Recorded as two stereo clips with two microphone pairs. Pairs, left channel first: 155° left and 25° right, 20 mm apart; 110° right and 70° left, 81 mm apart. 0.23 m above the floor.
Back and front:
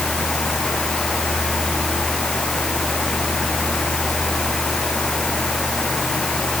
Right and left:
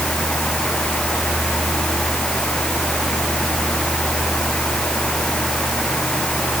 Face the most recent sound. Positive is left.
No sound to turn to.